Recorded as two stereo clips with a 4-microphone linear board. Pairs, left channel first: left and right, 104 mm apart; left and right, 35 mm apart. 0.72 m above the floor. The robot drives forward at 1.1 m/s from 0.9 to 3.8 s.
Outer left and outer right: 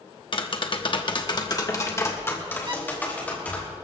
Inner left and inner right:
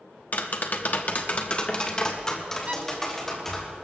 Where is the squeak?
45° right (ahead or behind), 1.1 m; by 2.8 s 55° right (ahead or behind), 1.0 m.